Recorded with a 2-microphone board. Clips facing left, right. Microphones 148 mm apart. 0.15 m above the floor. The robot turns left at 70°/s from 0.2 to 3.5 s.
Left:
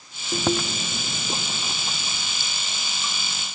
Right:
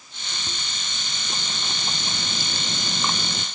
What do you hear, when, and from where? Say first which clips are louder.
0.3 s chewing: left 16 dB; 95° left; by 3.5 s 120° right